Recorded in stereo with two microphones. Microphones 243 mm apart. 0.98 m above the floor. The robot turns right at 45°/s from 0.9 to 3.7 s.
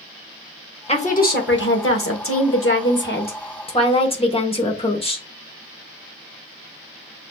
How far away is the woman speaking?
About 1.1 m.